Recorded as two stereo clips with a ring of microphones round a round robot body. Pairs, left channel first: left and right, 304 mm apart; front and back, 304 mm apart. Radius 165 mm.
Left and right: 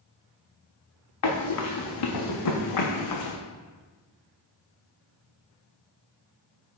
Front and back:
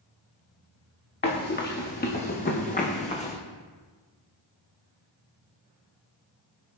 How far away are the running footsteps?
About 3 m.